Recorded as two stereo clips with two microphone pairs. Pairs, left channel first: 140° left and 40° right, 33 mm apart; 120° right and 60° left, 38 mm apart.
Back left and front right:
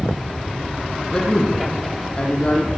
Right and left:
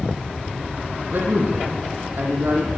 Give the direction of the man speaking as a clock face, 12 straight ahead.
9 o'clock.